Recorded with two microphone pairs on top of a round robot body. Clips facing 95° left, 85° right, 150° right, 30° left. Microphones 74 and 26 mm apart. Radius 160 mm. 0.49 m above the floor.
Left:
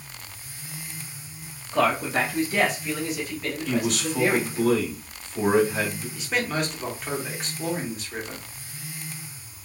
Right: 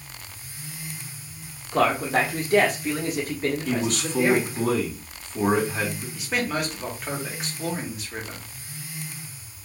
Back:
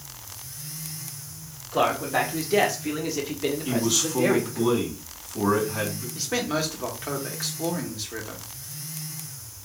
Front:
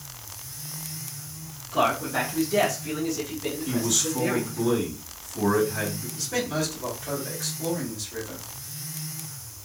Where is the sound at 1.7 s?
85° right, 1.9 m; by 4.7 s 160° right, 1.8 m.